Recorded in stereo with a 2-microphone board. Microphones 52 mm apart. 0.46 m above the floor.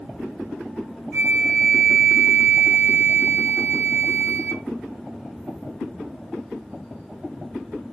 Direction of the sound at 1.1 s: 30° left (ahead or behind).